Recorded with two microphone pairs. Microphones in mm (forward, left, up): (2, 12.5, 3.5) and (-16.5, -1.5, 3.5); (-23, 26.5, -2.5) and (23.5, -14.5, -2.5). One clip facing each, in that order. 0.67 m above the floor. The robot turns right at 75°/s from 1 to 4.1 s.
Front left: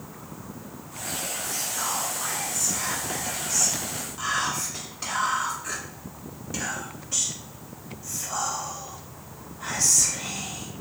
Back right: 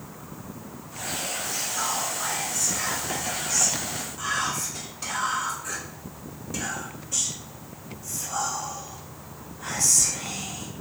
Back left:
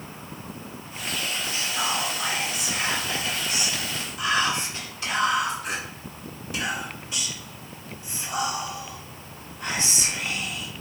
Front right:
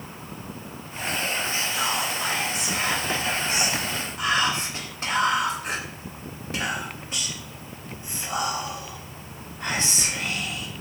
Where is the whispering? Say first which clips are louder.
Back right 1 dB, front right 1 dB; 140° left, 1.2 m; by 10.7 s 25° right, 1.2 m.